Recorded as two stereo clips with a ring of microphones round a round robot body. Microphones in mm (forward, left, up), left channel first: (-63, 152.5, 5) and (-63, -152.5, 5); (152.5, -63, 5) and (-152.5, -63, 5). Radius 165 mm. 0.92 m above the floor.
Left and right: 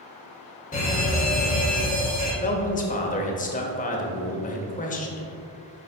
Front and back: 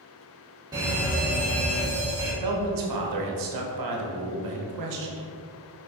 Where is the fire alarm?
115° left, 1.8 m.